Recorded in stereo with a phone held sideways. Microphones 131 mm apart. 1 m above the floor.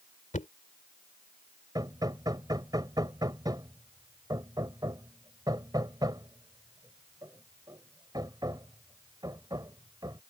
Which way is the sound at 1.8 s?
30° right (ahead or behind).